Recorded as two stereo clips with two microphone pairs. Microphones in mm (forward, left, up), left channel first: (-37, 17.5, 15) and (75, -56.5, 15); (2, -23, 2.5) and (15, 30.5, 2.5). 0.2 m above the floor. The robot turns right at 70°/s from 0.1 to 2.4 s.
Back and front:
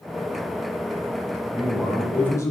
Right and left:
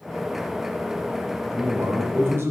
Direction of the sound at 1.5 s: 25° left.